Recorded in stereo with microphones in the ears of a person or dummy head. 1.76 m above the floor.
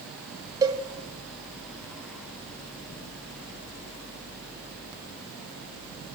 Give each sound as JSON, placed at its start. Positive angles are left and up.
{"t": 0.6, "sound": "a cowbell", "side_deg": -20, "distance_m": 1.9}